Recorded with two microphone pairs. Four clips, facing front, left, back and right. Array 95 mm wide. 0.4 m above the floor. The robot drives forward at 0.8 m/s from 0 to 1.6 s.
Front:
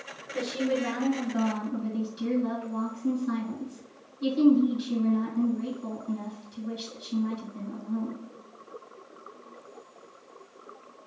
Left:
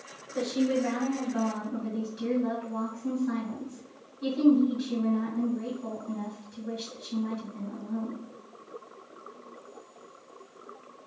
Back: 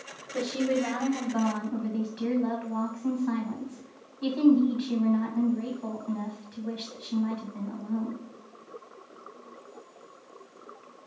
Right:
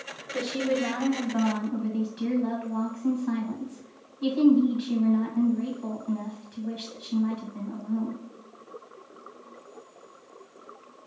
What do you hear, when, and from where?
0.3 s a woman speaking: 135° right, 1.5 m; by 8.2 s 155° right, 2 m